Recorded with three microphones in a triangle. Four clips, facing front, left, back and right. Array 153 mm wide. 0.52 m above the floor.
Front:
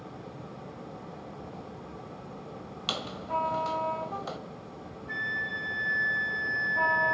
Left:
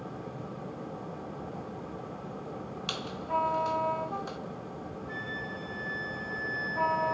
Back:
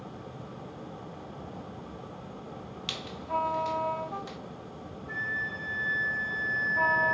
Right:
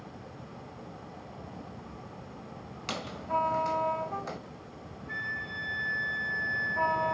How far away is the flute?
About 6.5 m.